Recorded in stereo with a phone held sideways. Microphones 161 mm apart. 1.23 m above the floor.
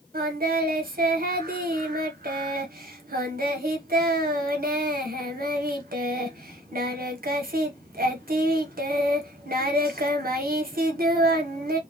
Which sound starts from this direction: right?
Singing, at 0.1 s.